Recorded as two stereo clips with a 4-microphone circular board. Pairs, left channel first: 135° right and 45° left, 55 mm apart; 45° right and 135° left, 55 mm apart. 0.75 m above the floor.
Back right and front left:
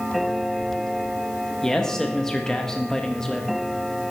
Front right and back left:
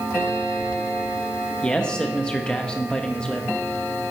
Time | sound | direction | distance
1.6 | a man speaking | 75° right | 0.8 m